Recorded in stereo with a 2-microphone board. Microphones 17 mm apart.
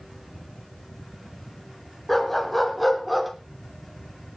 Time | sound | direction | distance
2.1 | a dog barking | 20° left (ahead or behind) | 3.5 m